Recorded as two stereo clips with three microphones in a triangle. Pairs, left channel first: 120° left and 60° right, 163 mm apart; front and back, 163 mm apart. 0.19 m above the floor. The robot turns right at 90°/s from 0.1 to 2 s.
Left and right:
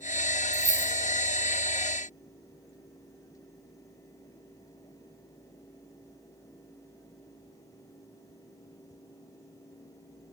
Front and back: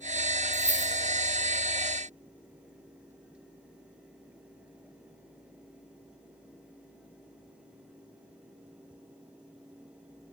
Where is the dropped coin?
115° right, 1.6 m; by 0.9 s 80° right, 1.6 m.